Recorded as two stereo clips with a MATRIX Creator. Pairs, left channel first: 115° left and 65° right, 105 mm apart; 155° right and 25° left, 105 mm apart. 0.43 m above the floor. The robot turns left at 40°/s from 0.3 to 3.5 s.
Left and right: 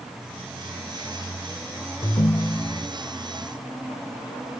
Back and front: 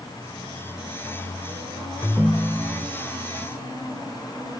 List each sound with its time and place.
2.0 s a ringtone: 125° left, 0.6 m; by 2.9 s 90° left, 0.6 m